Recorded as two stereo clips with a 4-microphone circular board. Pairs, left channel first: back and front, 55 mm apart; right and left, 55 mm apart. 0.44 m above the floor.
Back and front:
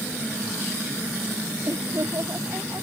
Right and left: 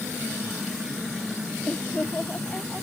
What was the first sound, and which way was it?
Laughter, 25° right.